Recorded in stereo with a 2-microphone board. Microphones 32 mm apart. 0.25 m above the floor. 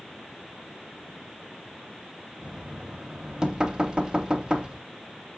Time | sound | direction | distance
2.4 | knocking | 20° right (ahead or behind) | 0.9 m